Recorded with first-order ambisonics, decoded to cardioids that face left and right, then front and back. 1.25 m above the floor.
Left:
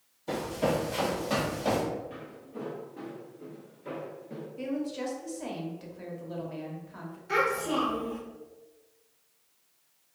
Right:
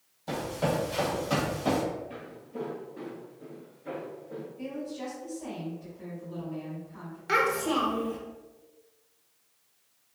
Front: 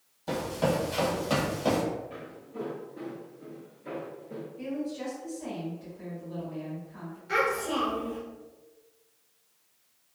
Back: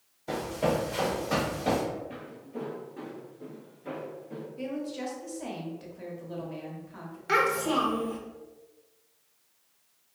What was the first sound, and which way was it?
Running footsteps, 25° right.